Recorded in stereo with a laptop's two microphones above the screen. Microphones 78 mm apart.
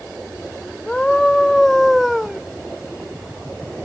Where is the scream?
10° left (ahead or behind); by 2.4 s 5° right (ahead or behind).